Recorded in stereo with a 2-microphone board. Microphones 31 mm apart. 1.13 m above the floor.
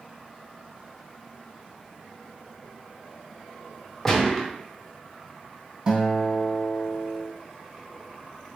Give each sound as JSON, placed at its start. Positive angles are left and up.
{"t": 4.0, "sound": "a gunshot", "side_deg": 10, "distance_m": 0.8}
{"t": 5.9, "sound": "a guitar", "side_deg": -30, "distance_m": 1.2}